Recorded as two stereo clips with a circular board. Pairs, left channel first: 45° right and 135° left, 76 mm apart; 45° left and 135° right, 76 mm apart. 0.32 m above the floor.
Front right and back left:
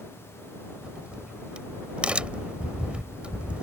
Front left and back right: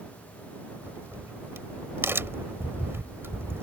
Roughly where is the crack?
Behind.